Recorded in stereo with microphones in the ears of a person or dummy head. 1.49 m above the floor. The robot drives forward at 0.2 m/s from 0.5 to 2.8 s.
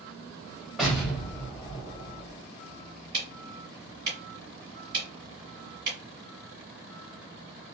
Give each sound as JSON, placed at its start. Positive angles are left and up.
{"t": 0.8, "sound": "an explosion", "side_deg": -5, "distance_m": 0.9}
{"t": 3.1, "sound": "ticking", "side_deg": -45, "distance_m": 1.8}